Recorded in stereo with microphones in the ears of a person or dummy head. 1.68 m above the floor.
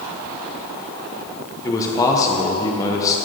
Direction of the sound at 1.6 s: 15° left (ahead or behind).